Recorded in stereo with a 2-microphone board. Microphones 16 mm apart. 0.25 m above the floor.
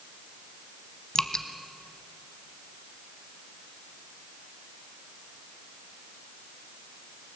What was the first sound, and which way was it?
Dripping, 55° left (ahead or behind).